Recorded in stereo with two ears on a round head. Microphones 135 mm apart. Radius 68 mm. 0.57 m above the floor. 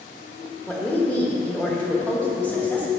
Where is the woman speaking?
10° left (ahead or behind), 1.2 m.